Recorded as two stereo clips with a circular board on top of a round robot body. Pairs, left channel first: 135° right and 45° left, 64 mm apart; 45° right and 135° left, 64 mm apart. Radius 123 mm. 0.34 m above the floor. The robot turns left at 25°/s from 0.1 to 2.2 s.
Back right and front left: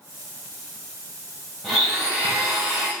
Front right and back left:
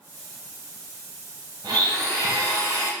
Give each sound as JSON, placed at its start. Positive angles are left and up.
{"t": 1.6, "sound": "a blender", "azimuth_deg": 135, "distance_m": 2.5}